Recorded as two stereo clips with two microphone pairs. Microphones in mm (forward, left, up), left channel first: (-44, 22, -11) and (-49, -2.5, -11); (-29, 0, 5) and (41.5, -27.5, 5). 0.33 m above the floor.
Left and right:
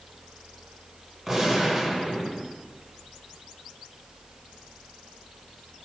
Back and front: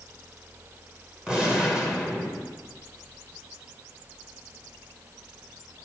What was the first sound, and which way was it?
A gunshot, 75° right.